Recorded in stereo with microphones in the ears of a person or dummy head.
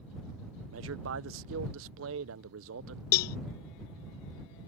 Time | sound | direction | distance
0.7 | a man speaking | 65° right (ahead or behind) | ?
3.1 | a cowbell | 50° left (ahead or behind) | ?